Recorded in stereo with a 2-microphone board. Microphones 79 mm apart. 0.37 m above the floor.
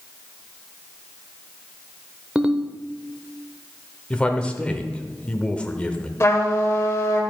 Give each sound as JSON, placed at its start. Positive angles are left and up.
{"t": 2.4, "sound": "a ringtone", "side_deg": -15, "distance_m": 0.6}
{"t": 4.1, "sound": "a man speaking", "side_deg": 15, "distance_m": 0.8}
{"t": 6.2, "sound": "a trumpet", "side_deg": 35, "distance_m": 1.7}